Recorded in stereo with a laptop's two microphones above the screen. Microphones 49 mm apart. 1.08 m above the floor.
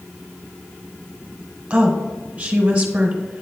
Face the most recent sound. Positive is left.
turn(degrees=-20)  # may be behind; listen again after turning